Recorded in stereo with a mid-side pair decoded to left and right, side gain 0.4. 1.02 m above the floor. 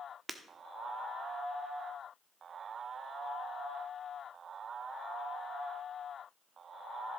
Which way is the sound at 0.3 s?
30° right.